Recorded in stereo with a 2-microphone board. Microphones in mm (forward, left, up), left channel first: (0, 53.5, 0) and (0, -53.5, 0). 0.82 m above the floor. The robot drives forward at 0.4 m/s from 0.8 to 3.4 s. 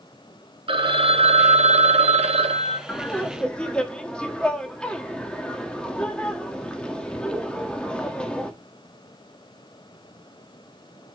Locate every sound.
0.7 s a phone ringing: 55° right (ahead or behind), 0.8 m; by 2.8 s 60° right (ahead or behind), 0.8 m
2.9 s laughter: 10° left (ahead or behind), 1.1 m